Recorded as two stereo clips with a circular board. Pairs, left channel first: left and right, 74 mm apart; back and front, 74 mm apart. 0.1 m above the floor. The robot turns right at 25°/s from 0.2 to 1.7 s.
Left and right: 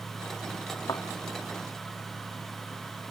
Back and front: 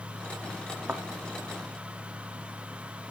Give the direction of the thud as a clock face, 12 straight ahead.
10 o'clock.